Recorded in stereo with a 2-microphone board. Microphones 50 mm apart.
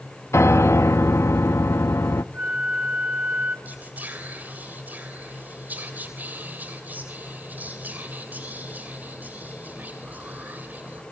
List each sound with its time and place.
0.3 s a piano: 65° left (ahead or behind), 0.6 m
2.3 s a flute: 40° right (ahead or behind), 2.5 m
3.6 s whispering: 40° right (ahead or behind), 3 m